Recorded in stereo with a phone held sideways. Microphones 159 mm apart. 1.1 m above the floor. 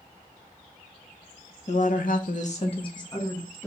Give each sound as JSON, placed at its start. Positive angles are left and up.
{"t": 1.7, "sound": "a woman speaking", "side_deg": 50, "distance_m": 0.9}